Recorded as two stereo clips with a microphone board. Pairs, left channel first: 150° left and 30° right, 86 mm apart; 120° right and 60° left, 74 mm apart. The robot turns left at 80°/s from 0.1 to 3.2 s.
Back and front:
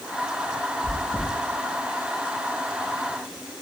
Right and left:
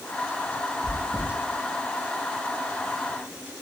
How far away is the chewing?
About 0.7 m.